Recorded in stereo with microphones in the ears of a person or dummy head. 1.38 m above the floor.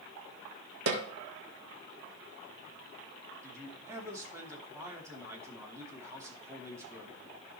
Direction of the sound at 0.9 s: 70° right (ahead or behind).